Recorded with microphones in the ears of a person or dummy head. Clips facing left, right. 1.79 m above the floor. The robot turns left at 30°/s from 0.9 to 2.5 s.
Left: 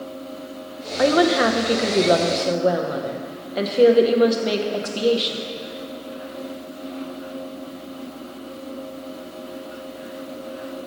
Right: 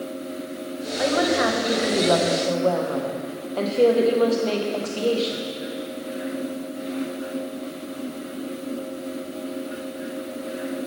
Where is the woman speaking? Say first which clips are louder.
Left 4 dB; 65° left, 0.7 m; by 5.4 s 20° left, 0.7 m.